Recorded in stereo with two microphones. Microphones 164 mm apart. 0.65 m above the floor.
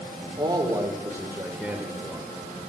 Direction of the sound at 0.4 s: 30° right (ahead or behind).